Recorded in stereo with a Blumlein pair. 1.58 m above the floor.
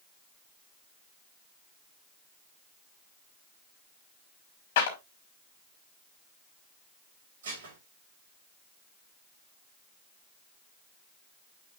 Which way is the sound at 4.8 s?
55° left.